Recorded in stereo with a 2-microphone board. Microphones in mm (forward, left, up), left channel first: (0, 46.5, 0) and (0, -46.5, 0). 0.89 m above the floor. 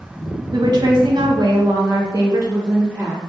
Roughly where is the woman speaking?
Right.